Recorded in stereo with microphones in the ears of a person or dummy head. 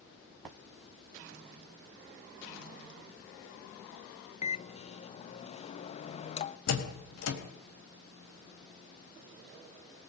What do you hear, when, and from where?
4.4 s a microwave: 45° left (ahead or behind), 0.7 m
6.7 s a door slam: 85° left, 4.5 m